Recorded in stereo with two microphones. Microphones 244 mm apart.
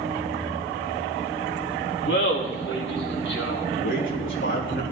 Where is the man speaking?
55° left (ahead or behind), 2.5 m.